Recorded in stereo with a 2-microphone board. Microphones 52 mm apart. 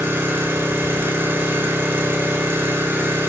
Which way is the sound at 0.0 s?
50° right (ahead or behind).